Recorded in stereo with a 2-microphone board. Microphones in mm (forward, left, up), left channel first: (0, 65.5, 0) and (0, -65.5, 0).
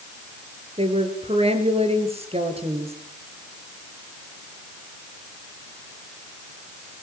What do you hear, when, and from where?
0.8 s a woman speaking: 50° right (ahead or behind), 4 m